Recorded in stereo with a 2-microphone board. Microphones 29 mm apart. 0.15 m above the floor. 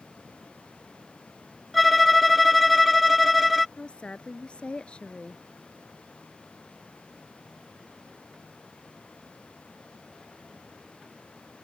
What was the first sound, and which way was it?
A violin, centre (ahead or behind).